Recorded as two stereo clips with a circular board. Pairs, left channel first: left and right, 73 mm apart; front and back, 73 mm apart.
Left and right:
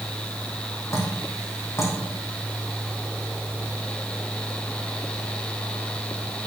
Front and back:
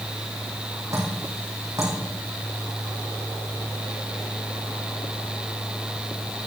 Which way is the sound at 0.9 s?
140° left.